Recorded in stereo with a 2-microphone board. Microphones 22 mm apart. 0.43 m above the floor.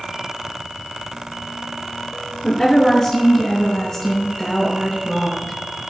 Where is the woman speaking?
15° left (ahead or behind), 7.5 m; by 5.6 s 5° right (ahead or behind), 7 m.